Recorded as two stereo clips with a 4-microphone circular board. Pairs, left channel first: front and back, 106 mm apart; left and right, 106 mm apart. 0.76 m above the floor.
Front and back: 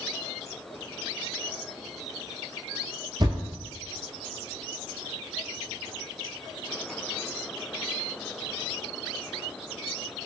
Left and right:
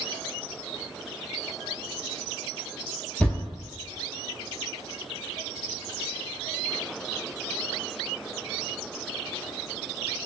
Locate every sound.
3.2 s a thud: 160° left, 1.1 m